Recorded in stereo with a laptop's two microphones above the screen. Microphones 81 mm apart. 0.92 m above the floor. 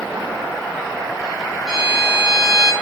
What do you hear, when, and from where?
1.7 s a violin: 10° right (ahead or behind), 0.5 m